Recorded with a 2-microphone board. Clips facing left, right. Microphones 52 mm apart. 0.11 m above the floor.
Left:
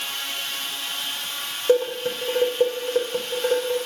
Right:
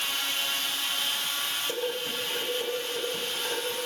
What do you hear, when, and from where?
1.7 s dishes clattering: 60° left (ahead or behind), 5 m